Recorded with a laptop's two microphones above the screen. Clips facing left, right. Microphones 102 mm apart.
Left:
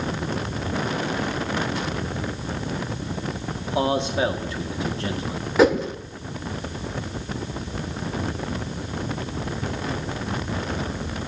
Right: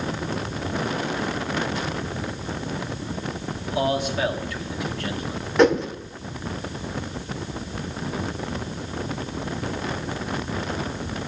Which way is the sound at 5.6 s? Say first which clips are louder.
Even; 5° left (ahead or behind).